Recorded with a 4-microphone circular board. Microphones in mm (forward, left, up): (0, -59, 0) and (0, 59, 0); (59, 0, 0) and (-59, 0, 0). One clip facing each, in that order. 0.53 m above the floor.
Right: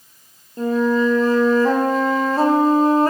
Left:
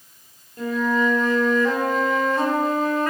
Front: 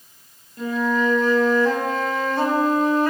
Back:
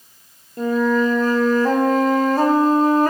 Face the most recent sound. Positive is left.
turn(degrees=-140)